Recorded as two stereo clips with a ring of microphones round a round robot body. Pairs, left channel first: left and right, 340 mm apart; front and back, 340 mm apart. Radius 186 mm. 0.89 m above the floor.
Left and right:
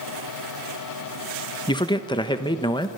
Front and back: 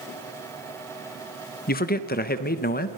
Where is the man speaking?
25° left, 0.8 m.